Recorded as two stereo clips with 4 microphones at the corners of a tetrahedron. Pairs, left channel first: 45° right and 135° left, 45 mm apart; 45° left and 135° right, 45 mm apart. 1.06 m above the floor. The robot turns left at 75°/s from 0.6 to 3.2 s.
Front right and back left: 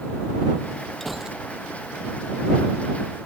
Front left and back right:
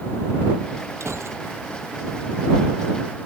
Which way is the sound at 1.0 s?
130° right.